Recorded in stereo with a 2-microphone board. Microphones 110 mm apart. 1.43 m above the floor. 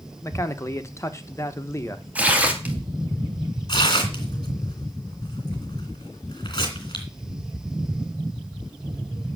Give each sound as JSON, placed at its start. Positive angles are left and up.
{"t": 0.2, "sound": "a man speaking", "side_deg": 25, "distance_m": 1.0}
{"t": 2.1, "sound": "tearing paper", "side_deg": -10, "distance_m": 1.8}
{"t": 3.7, "sound": "tearing paper", "side_deg": 45, "distance_m": 2.5}